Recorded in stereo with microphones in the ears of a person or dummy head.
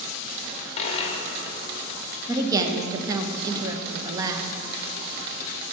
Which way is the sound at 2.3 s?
20° right (ahead or behind).